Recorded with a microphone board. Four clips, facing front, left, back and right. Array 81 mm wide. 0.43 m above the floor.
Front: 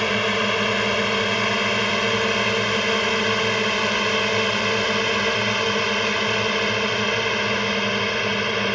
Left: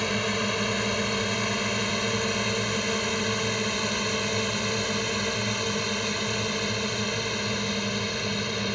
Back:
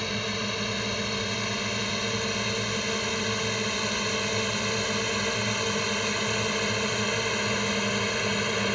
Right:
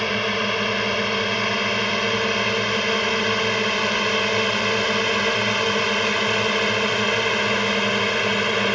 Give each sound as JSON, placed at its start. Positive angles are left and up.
{"t": 0.0, "sound": "a drone", "azimuth_deg": -25}